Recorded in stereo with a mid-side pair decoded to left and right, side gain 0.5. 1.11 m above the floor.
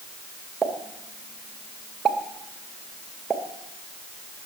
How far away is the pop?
About 2.0 m.